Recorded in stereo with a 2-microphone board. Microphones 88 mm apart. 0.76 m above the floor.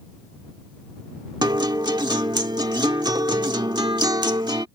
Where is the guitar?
55° right (ahead or behind).